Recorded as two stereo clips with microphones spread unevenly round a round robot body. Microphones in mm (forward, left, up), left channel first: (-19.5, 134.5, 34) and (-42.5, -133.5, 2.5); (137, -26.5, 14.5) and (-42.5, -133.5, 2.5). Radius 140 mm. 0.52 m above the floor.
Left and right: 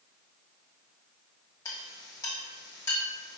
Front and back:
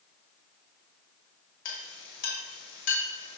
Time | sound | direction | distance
1.6 | a clink | 5° left | 2 m